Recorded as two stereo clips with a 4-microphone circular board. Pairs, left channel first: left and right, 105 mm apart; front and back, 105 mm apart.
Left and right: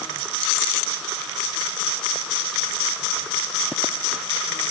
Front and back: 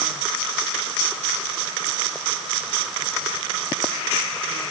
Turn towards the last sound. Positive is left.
No sound to turn to.